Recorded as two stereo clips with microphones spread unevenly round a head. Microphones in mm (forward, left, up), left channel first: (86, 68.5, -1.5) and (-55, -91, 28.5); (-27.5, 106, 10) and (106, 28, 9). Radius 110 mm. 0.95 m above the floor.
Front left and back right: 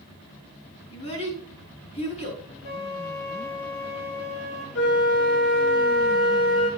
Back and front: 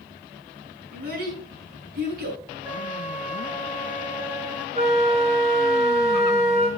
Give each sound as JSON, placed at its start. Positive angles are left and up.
{"t": 0.9, "sound": "a child speaking", "azimuth_deg": -15, "distance_m": 5.0}
{"t": 2.6, "sound": "a flute", "azimuth_deg": 50, "distance_m": 2.5}
{"t": 4.8, "sound": "a flute", "azimuth_deg": 15, "distance_m": 5.5}